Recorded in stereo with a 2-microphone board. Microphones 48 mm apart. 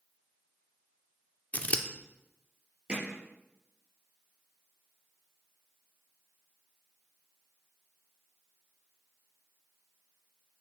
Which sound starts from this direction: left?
Scissors, at 1.5 s.